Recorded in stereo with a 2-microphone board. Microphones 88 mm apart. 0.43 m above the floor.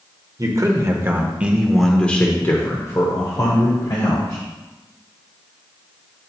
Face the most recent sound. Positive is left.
turn(degrees=60)  # may be behind; listen again after turning